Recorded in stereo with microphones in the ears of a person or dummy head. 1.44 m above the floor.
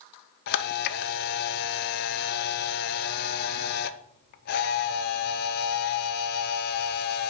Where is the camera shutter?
55° left (ahead or behind), 0.7 m.